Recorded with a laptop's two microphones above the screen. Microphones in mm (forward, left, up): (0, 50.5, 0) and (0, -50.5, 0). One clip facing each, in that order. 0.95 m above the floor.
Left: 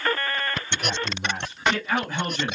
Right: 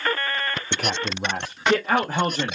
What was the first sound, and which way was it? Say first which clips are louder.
A man speaking: right 2 dB; 80° right.